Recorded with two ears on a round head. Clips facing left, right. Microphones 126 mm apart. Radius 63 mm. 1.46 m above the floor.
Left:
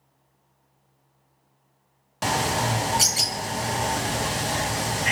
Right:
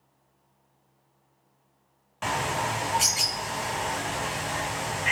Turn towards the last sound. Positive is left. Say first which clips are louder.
# left 4 dB
turn(degrees=45)  # may be behind; listen again after turning